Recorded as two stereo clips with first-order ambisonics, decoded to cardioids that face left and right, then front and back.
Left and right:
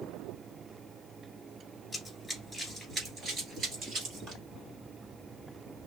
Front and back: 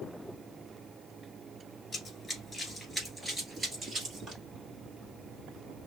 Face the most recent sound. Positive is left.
turn(degrees=-120)